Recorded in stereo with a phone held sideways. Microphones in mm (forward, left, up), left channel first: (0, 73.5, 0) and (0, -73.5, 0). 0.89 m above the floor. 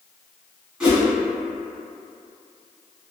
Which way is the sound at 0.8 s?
5° right (ahead or behind).